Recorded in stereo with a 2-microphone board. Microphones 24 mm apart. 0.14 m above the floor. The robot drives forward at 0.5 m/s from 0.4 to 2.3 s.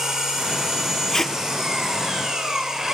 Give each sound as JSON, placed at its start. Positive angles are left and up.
{"t": 0.0, "sound": "an engine running", "side_deg": -25, "distance_m": 6.0}
{"t": 1.1, "sound": "tape being pulled", "side_deg": 15, "distance_m": 1.3}